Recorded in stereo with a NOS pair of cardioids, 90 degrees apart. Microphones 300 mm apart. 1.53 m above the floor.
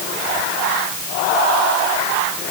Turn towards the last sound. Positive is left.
No sound to turn to.